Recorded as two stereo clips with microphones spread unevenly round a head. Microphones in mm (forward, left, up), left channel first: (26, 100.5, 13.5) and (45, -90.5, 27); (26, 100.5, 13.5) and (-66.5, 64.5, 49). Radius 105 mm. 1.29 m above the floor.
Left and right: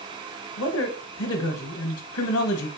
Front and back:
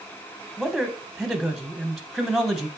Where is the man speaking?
110° left, 0.8 m.